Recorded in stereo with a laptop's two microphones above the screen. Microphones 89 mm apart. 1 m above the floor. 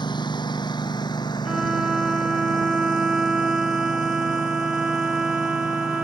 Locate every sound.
0.0 s a lawn mower: 55° left (ahead or behind); by 6.0 s 45° left (ahead or behind)
1.4 s a violin: 10° right (ahead or behind)